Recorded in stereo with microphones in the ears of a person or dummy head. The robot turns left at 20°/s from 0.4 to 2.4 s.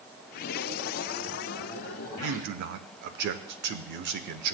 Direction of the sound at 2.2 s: 60° right (ahead or behind).